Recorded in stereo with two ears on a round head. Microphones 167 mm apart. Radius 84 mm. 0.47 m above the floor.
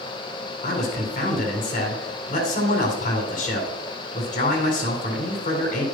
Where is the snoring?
I don't hear snoring.